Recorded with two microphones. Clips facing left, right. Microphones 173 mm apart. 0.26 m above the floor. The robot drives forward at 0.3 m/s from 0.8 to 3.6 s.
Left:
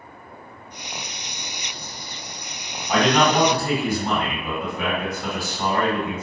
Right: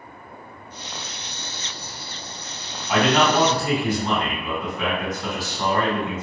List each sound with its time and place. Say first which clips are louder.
2.9 s a man speaking: even; 15° left (ahead or behind), 1.7 m; by 6.2 s 10° left (ahead or behind), 1.8 m